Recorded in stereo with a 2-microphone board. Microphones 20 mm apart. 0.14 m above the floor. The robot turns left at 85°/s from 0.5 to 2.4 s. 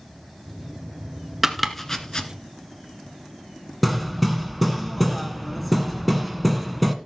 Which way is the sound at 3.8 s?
5° left (ahead or behind).